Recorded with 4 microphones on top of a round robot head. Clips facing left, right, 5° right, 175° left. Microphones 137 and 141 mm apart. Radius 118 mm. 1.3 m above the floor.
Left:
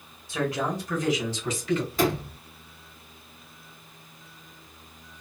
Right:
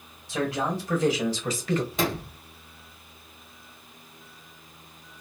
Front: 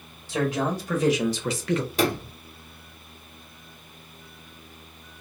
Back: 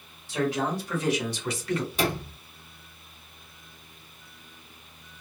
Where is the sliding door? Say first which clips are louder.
Left 3 dB, front 3 dB; 15° right, 1.6 m.